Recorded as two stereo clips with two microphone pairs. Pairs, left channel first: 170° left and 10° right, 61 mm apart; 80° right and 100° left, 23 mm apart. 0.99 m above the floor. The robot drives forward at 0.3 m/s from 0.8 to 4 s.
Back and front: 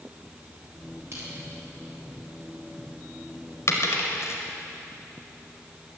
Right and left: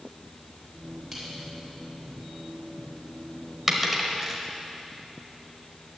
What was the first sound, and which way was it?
Crushing, 25° left.